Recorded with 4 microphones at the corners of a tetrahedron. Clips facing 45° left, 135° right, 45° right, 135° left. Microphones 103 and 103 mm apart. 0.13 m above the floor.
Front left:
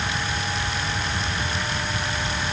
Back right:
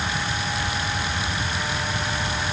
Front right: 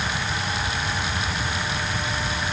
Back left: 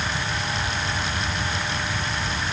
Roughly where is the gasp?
No gasp in this recording.